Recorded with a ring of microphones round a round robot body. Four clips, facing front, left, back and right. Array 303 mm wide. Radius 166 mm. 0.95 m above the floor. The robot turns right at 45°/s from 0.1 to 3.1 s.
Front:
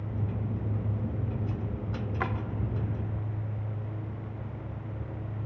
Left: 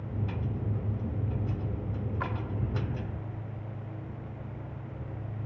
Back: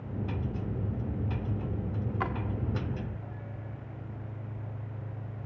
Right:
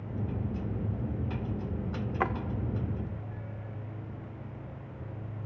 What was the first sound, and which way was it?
A drawer, 80° right.